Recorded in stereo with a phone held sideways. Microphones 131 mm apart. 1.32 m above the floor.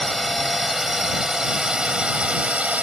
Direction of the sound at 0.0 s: Centre (ahead or behind).